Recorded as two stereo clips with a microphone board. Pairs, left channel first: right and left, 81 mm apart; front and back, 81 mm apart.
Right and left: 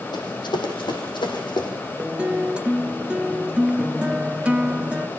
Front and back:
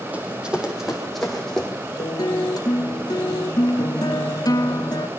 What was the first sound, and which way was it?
Running footsteps, 110° right.